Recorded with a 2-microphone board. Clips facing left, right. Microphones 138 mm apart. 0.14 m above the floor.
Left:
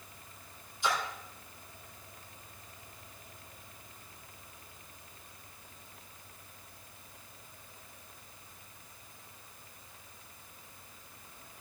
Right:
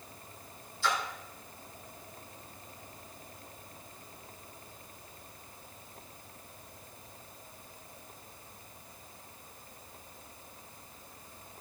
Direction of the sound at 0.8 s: 20° left (ahead or behind).